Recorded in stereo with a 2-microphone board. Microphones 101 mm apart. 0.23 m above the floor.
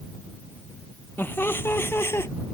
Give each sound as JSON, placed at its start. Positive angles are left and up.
{"t": 1.2, "sound": "laughter", "side_deg": 20}